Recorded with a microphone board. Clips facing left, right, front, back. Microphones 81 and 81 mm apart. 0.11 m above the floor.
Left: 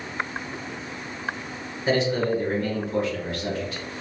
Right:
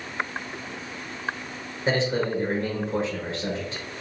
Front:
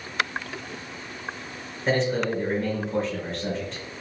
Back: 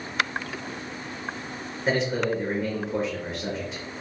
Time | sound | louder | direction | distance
1.9 | a man speaking | left 2 dB, front 1 dB | 100° right | 1.4 m